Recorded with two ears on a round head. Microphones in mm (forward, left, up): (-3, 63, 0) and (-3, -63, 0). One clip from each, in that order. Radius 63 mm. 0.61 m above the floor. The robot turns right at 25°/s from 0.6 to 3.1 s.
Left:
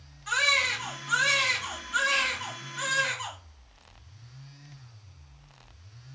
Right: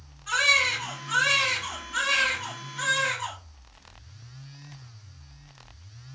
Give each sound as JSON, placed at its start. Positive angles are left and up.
{"t": 0.3, "sound": "a baby crying", "azimuth_deg": 40, "distance_m": 1.5}